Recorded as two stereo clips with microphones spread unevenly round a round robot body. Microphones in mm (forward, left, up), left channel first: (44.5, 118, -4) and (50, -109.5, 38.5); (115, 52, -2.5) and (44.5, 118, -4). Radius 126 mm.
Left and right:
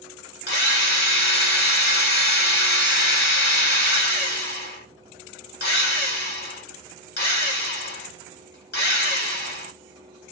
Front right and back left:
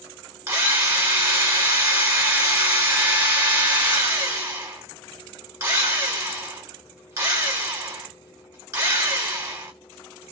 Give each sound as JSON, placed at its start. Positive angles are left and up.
{"t": 0.5, "sound": "a drill", "azimuth_deg": 85, "distance_m": 2.0}